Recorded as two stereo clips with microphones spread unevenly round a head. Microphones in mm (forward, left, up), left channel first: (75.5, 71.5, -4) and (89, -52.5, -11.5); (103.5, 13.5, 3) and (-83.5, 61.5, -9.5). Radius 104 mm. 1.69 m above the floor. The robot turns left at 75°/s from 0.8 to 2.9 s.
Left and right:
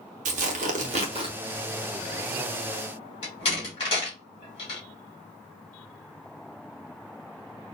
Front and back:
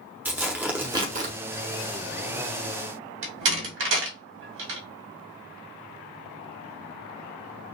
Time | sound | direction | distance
0.2 | tearing paper | 110° right | 0.8 m
3.2 | a door slam | 155° left | 1.8 m